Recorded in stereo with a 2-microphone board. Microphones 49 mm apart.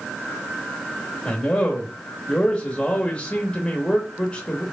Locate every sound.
1.2 s a man speaking: 30° left (ahead or behind), 1.0 m